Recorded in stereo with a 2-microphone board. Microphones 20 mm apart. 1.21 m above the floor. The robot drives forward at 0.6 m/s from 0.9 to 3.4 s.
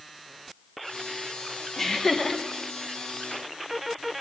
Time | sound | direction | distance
1.8 | laughter | 15° left (ahead or behind) | 1.3 m